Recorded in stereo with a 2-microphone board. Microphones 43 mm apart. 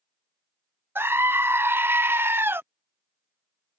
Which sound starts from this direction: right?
A scream, at 0.9 s.